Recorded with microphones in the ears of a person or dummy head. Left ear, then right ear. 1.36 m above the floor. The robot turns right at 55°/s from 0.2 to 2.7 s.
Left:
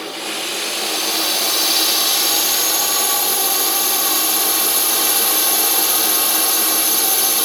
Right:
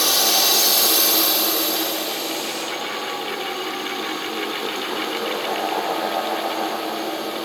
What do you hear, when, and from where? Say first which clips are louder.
0.0 s a drone: right 7 dB; 50° right; by 7.5 s 90° left